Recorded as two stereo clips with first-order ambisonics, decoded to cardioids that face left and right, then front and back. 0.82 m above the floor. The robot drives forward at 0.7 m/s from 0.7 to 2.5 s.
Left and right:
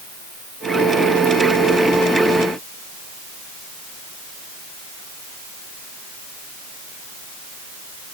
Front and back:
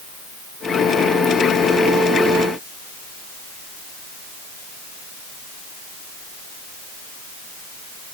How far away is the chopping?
No chopping in this recording.